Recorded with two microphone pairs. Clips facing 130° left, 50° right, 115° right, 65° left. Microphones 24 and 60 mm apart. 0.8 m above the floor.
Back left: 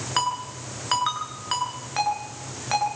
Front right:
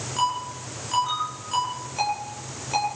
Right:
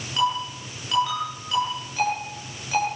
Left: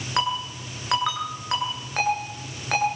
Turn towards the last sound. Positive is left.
turn(degrees=95)